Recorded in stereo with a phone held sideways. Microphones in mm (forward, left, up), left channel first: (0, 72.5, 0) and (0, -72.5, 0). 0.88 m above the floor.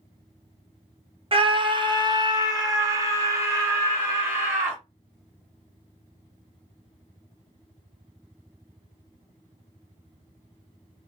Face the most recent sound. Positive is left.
turn(degrees=-15)  # may be behind; listen again after turning